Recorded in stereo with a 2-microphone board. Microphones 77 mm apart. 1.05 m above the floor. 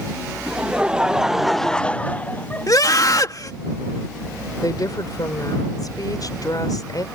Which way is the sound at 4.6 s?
60° left (ahead or behind).